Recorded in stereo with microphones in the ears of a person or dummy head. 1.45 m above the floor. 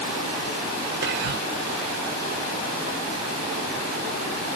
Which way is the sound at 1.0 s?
55° right (ahead or behind).